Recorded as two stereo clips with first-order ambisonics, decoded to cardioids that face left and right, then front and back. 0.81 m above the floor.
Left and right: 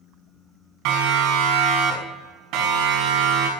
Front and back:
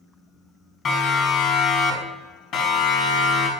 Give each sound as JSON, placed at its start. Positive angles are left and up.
{"t": 0.8, "sound": "a siren", "azimuth_deg": -65, "distance_m": 6.0}